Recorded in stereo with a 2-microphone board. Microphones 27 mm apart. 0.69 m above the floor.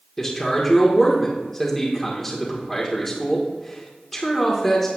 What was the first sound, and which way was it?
A man speaking, 15° left (ahead or behind).